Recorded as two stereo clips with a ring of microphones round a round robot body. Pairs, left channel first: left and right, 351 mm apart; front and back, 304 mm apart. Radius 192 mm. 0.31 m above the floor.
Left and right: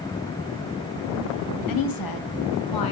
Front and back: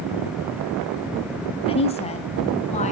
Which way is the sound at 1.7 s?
70° left.